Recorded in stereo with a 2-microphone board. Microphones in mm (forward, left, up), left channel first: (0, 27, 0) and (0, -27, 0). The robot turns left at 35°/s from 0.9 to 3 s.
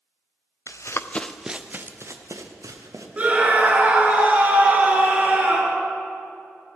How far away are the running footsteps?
About 0.7 m.